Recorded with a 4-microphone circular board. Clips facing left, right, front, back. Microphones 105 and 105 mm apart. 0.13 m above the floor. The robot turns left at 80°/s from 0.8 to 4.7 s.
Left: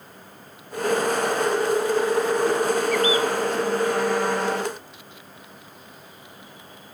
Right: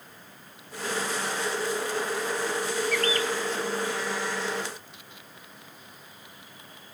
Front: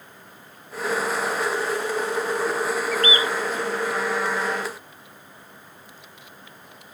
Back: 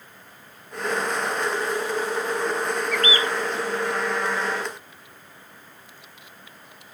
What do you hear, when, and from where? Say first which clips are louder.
2.9 s a bird: left 6 dB, even; 50° right; by 3.3 s 80° right